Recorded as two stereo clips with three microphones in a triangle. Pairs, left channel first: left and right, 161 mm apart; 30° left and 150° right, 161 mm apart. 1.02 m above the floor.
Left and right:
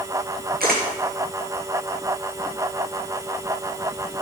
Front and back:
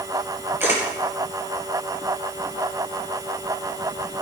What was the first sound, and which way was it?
A camera shutter, 75° right.